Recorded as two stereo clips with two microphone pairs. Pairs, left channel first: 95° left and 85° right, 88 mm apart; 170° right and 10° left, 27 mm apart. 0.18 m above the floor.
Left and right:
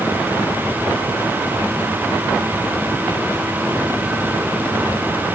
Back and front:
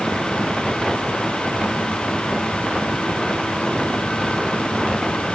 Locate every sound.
Only background noise.